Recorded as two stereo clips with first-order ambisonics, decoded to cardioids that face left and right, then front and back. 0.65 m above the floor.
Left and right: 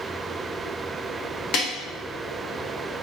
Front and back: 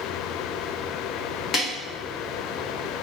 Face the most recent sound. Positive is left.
turn(degrees=55)